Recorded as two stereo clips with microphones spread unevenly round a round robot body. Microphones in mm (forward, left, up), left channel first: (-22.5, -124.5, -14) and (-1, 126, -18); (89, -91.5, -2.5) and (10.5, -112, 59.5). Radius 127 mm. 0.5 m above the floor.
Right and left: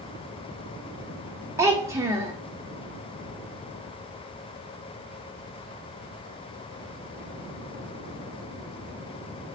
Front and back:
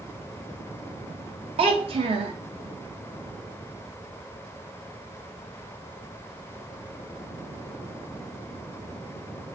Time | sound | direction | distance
1.6 | a child speaking | 155° left | 0.5 m